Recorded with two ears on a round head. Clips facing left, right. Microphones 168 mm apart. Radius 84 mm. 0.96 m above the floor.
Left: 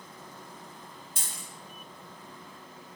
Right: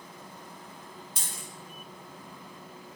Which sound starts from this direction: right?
A dropped coin, at 1.2 s.